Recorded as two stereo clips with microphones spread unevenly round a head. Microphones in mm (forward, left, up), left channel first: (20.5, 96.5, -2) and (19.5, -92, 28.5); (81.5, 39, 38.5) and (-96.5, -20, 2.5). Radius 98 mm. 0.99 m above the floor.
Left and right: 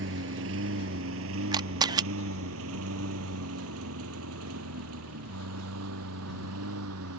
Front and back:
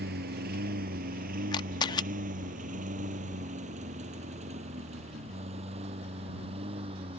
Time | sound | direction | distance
0.0 | a lawn mower | 115° right | ?
1.5 | a camera shutter | 35° right | ?